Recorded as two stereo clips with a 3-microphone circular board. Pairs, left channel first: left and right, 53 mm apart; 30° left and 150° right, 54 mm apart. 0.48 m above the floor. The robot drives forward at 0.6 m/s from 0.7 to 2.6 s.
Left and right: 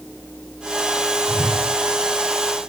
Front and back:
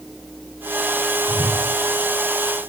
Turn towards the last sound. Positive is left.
turn(degrees=-150)